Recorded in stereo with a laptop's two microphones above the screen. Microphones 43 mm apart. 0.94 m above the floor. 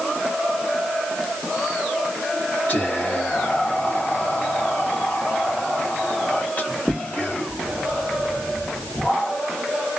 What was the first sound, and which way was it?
Whispering, 40° left (ahead or behind).